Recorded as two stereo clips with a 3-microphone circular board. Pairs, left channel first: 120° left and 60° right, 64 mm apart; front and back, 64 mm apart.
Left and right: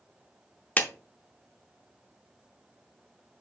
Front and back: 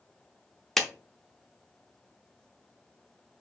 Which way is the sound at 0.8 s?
80° left.